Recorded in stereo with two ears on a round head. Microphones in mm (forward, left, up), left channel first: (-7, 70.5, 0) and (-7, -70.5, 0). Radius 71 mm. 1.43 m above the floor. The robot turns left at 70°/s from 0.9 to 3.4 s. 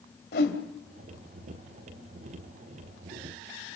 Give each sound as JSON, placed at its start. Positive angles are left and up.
{"t": 0.3, "sound": "a whoosh", "side_deg": 65, "distance_m": 2.5}